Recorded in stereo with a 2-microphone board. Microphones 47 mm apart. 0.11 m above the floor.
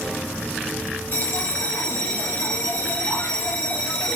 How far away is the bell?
About 2.5 m.